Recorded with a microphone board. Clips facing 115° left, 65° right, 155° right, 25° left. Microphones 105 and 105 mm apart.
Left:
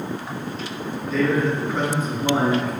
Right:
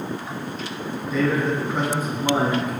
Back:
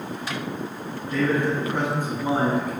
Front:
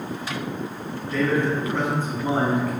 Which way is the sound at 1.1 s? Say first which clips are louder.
Left 1 dB, even; 120° right.